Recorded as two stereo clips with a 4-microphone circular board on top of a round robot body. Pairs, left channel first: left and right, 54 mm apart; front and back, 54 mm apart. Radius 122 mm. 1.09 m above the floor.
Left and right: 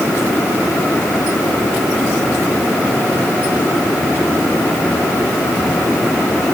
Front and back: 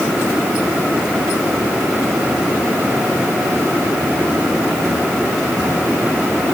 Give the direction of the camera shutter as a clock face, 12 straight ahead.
No camera shutter in this recording.